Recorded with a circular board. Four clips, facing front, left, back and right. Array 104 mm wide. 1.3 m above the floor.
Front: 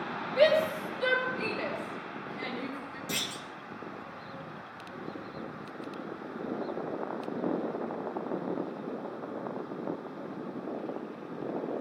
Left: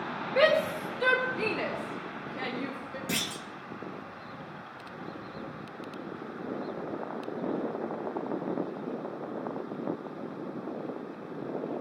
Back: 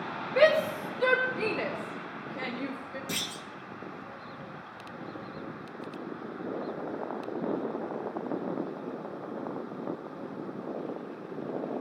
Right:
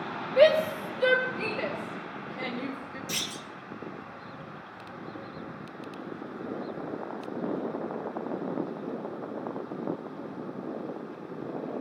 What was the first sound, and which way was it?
A shout, 125° left.